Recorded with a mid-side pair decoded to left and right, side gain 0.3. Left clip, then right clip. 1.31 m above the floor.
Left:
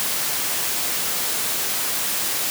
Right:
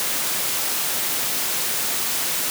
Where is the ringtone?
No ringtone in this recording.